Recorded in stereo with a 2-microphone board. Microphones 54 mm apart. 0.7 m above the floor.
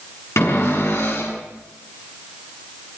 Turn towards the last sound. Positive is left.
turn(degrees=60)  # may be behind; listen again after turning